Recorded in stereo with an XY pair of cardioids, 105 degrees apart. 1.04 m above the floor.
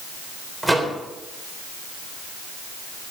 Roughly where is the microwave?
Ahead.